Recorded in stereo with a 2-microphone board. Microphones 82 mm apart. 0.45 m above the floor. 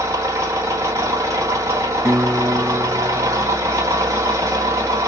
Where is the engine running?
40° right (ahead or behind), 1.9 m.